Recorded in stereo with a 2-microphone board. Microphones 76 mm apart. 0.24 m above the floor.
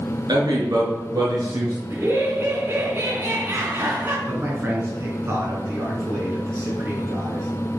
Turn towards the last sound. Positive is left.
turn(degrees=-35)  # may be behind; listen again after turning